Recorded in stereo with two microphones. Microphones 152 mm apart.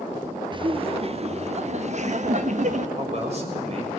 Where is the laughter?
30° right (ahead or behind), 0.8 m; by 2.9 s 50° right (ahead or behind), 1.7 m.